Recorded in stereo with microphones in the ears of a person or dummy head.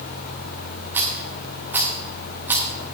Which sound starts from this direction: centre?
A rattle, at 0.9 s.